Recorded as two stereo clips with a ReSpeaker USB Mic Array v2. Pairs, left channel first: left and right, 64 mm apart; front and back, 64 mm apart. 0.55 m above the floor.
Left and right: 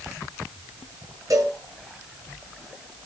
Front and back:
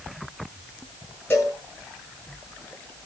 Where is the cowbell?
55° right, 8.5 m.